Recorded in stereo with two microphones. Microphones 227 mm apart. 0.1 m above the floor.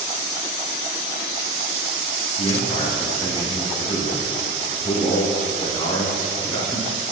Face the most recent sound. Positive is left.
turn(degrees=20)  # may be behind; listen again after turning